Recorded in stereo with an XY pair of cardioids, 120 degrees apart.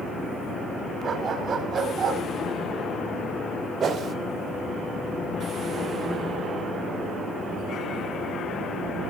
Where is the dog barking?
50° right, 6.5 m; by 2.2 s 45° right, 7.5 m.